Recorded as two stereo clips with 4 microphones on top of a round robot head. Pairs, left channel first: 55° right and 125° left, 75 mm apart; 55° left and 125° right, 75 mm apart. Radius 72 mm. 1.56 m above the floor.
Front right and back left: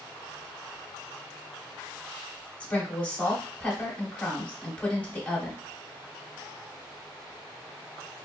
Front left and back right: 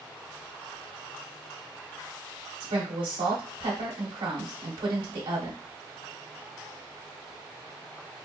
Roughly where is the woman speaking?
Behind right.